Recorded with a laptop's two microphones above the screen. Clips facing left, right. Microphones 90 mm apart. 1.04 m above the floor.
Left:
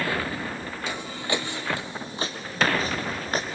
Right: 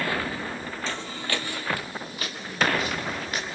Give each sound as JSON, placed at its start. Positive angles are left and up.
{"t": 0.9, "sound": "footsteps", "side_deg": 10, "distance_m": 1.8}